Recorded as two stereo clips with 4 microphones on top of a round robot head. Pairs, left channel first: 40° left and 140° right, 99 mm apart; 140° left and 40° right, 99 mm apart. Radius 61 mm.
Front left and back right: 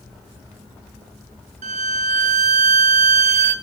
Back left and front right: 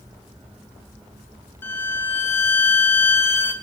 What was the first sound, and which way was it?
A violin, 150° right.